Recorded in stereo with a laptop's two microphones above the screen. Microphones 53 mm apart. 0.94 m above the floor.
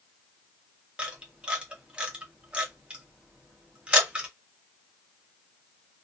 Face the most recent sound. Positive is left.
turn(degrees=-20)  # may be behind; listen again after turning